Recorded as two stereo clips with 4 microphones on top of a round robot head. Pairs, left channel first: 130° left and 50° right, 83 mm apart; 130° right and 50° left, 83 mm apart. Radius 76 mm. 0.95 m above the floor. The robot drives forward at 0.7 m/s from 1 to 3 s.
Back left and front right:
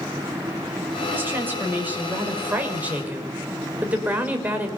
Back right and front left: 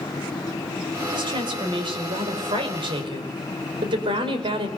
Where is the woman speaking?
20° left, 6 m; by 4.7 s 25° left, 5 m.